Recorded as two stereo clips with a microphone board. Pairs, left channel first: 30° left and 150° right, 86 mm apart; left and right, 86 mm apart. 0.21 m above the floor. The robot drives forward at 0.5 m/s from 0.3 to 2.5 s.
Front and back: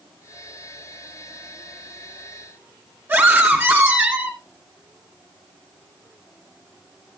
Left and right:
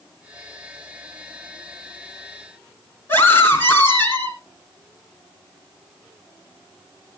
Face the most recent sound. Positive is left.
turn(degrees=150)